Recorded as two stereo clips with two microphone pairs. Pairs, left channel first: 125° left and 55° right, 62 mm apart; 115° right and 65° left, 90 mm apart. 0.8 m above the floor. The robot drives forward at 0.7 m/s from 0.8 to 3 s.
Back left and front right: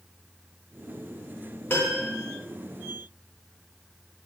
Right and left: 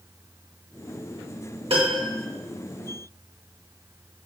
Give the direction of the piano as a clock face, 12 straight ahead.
10 o'clock.